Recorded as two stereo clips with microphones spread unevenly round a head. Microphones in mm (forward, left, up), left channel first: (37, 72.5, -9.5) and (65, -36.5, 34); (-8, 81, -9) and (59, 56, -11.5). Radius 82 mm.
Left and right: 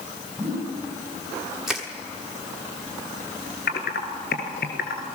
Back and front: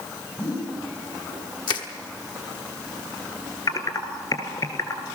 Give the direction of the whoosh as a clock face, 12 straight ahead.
5 o'clock.